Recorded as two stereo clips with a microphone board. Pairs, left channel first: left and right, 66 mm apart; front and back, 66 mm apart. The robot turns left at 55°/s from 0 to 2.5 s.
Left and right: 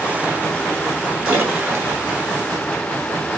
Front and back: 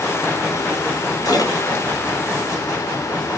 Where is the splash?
10° right, 5.5 m; by 3.4 s 80° right, 5.5 m.